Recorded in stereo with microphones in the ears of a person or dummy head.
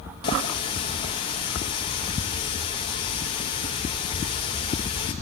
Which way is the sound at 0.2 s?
30° left (ahead or behind).